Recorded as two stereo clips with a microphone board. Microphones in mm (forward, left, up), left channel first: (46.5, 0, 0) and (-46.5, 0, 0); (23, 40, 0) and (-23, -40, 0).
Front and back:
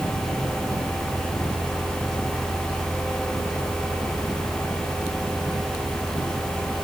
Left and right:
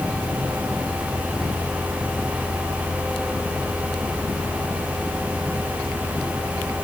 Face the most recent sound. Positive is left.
No sound to turn to.